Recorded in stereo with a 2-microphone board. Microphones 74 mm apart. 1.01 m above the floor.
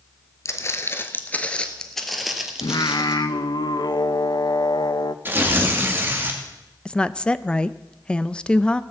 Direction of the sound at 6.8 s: 15° left (ahead or behind).